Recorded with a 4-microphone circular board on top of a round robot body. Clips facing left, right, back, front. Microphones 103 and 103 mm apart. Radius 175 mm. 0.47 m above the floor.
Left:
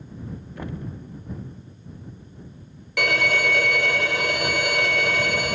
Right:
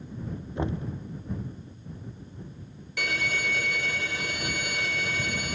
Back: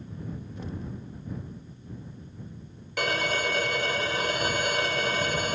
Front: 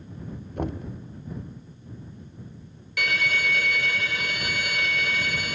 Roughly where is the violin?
Behind left.